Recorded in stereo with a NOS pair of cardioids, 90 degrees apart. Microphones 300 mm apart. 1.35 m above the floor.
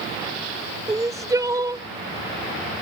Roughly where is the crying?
Ahead.